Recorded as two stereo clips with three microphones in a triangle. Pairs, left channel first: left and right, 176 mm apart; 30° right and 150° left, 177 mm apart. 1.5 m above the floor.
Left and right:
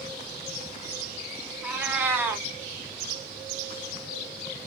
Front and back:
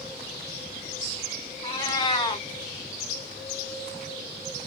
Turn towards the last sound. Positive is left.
turn(degrees=-30)